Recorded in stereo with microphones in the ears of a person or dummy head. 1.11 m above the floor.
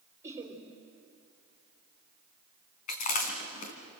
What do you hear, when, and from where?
0.2 s laughter: 15° right (ahead or behind), 3.5 m
2.9 s chewing: 45° left (ahead or behind), 3 m